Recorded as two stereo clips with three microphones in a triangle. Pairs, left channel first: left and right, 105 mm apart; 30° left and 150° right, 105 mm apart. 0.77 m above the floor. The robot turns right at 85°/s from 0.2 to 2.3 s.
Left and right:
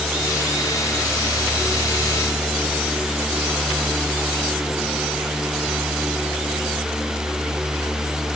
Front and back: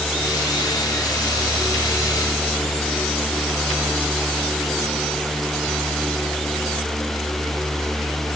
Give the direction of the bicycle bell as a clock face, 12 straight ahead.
I don't hear a bicycle bell.